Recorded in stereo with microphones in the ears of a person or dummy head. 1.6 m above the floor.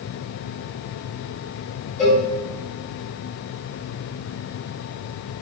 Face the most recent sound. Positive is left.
turn(degrees=5)  # may be behind; listen again after turning